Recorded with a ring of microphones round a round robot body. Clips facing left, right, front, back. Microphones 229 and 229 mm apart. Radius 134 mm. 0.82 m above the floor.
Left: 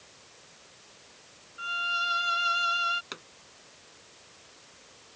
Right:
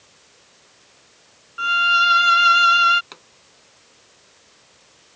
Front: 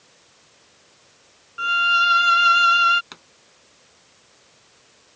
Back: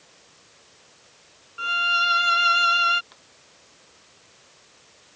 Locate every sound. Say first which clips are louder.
1.6 s a violin: right 13 dB, front 3 dB; 75° right
3.1 s a pop: left 2 dB, front 9 dB; 15° left